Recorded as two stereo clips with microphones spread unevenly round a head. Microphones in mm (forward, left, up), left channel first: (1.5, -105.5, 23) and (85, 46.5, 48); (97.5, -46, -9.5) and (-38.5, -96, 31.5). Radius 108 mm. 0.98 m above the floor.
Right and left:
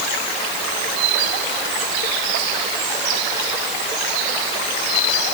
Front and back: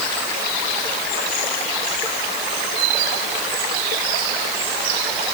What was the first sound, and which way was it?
Only background noise.